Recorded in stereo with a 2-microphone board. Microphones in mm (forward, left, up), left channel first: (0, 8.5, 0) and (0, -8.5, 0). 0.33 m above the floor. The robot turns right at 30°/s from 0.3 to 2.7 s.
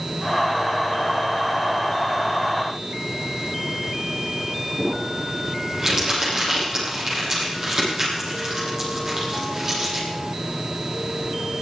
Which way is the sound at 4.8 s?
25° right (ahead or behind).